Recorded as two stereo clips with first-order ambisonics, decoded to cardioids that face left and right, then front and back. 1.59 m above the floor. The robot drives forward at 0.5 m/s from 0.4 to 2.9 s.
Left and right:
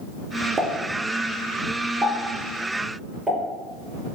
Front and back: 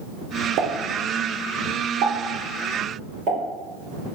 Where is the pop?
160° right, 0.5 m; by 3.4 s 175° right, 1.7 m.